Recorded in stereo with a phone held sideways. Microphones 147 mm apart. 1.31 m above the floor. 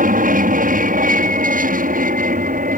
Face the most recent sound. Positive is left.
turn(degrees=-65)  # may be behind; listen again after turning